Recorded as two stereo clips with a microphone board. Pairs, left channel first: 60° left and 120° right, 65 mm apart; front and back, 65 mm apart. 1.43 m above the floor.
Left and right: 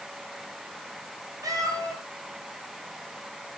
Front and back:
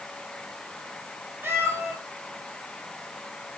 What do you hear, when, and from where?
1.4 s a cat meowing: 130° right, 4 m